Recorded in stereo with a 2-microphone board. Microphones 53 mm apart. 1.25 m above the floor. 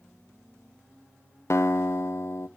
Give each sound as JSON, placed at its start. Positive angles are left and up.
{"t": 1.5, "sound": "a guitar", "side_deg": 60, "distance_m": 0.7}